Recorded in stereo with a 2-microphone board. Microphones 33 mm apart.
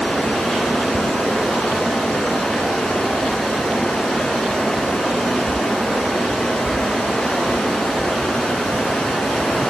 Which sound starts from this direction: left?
Running water, at 0.0 s.